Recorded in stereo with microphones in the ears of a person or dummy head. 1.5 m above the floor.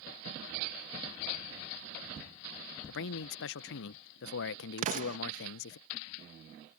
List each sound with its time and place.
2.9 s a man speaking: 65° left (ahead or behind)
4.8 s an explosion: 45° right (ahead or behind)